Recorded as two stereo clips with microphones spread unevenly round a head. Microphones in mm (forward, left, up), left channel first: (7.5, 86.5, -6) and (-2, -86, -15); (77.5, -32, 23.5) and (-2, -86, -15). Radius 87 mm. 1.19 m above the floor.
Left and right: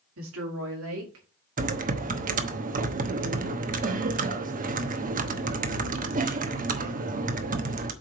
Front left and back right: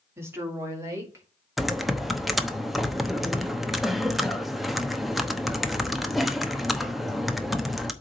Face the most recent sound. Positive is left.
turn(degrees=-50)